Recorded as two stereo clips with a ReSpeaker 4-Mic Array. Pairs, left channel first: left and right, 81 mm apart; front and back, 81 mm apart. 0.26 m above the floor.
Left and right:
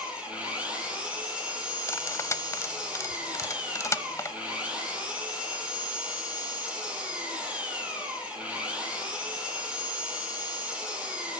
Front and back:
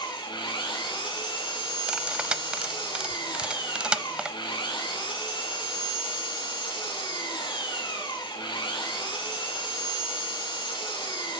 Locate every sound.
0.0 s an engine running: 15° right, 5 m
1.9 s cutlery clinking: 110° left, 0.6 m